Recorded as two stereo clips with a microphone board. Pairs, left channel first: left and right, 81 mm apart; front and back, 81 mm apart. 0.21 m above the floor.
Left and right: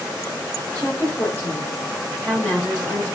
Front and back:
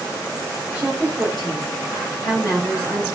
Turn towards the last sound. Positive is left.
turn(degrees=40)